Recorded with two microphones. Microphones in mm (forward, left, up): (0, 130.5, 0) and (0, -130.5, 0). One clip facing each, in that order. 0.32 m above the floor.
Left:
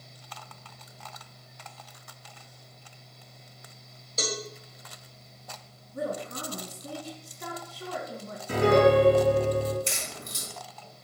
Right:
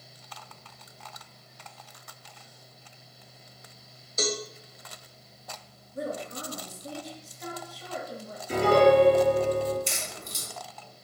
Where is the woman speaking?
65° left (ahead or behind), 3 m.